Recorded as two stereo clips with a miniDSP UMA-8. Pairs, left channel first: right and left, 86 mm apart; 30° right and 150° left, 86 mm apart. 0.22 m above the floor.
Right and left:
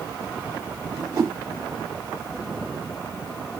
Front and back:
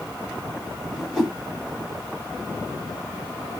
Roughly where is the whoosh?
Ahead left.